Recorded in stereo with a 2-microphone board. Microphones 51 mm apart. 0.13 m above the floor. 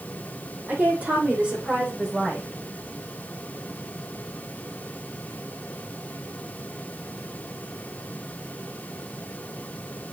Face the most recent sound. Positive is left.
turn(degrees=-10)  # may be behind; listen again after turning